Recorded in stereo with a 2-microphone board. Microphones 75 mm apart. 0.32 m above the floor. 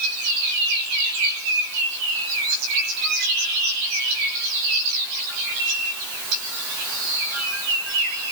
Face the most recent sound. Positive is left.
No sound to turn to.